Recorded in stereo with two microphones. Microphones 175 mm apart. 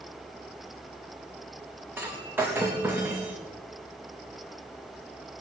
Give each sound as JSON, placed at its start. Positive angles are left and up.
{"t": 2.0, "sound": "breaking glass", "side_deg": -10, "distance_m": 3.5}